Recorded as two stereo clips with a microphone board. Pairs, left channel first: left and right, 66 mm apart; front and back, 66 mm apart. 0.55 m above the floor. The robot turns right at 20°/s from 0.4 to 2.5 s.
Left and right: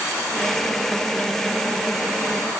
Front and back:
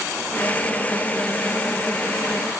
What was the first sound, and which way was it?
Only background noise.